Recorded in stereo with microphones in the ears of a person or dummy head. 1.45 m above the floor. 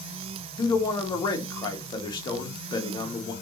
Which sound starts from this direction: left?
A man speaking, at 0.6 s.